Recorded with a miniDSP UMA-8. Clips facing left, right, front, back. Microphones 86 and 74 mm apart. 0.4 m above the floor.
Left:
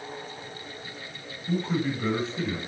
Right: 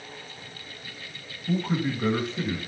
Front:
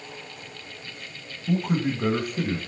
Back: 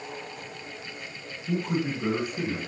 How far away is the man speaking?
About 2 m.